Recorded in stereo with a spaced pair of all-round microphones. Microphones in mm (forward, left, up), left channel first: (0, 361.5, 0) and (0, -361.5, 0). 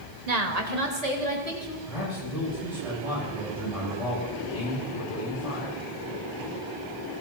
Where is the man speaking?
50° left (ahead or behind), 8.5 m.